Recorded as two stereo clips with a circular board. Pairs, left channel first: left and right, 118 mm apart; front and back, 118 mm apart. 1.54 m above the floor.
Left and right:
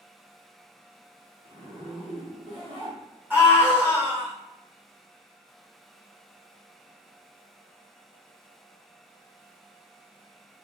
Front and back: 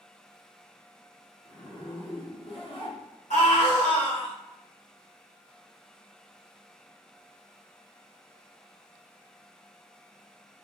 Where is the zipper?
45° right, 1.4 m.